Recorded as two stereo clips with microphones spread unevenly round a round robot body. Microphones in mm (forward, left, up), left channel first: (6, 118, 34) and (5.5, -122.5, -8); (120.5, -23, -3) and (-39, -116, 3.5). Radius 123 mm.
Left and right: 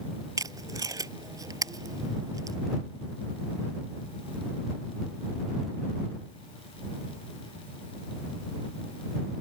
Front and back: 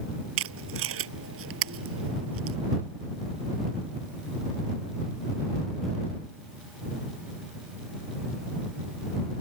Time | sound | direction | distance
0.4 | tape being pulled | 165° right | ?